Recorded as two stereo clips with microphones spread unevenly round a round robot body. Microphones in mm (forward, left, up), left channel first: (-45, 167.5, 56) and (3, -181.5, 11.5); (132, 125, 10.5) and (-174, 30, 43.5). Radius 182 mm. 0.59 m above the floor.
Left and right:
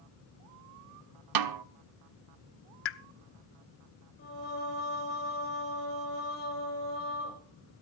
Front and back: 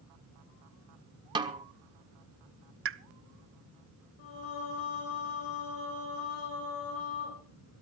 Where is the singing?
35° left, 5 m.